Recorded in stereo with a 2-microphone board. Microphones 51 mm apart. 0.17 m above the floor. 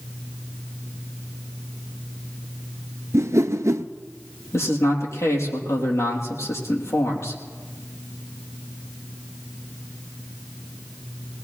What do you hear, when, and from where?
3.1 s a whoosh: 75° right (ahead or behind), 0.7 m
4.5 s a man speaking: 65° left (ahead or behind), 4 m